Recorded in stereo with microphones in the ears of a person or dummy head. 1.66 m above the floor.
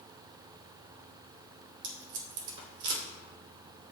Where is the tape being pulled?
60° right (ahead or behind), 2.5 m.